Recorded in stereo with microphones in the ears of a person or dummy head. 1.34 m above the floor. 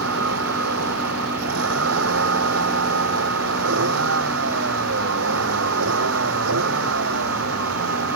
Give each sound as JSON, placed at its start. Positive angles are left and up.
{"t": 0.0, "sound": "a vehicle", "side_deg": -80}